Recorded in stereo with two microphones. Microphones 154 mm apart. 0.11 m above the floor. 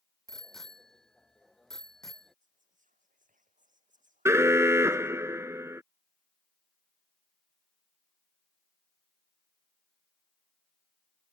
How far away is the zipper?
I don't hear a zipper.